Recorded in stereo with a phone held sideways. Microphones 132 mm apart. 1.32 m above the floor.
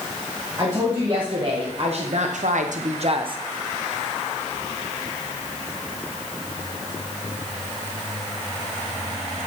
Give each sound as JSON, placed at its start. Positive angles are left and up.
{"t": 0.6, "sound": "a woman speaking", "side_deg": -30, "distance_m": 1.7}